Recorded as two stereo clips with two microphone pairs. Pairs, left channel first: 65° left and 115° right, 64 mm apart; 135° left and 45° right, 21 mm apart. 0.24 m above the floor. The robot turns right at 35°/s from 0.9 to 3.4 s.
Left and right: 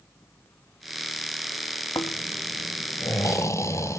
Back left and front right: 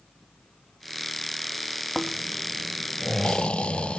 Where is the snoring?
55° left, 0.9 m; by 4.0 s 105° left, 0.9 m.